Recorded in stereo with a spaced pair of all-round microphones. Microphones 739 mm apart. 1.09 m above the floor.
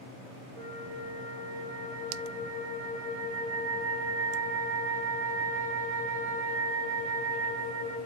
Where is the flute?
55° right (ahead or behind), 2.5 m.